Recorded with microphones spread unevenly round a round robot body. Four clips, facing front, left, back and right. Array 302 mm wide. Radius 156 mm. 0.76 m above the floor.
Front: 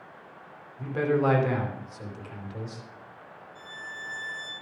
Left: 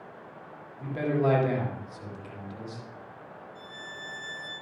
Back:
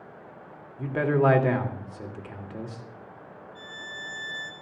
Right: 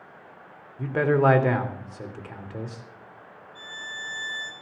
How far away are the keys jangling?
No keys jangling in this recording.